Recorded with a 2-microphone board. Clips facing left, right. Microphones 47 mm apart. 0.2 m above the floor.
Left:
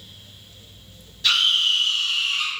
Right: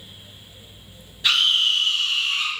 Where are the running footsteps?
I don't hear running footsteps.